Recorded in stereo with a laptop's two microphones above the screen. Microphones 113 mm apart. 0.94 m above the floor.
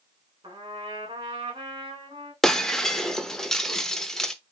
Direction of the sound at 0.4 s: 45° right (ahead or behind).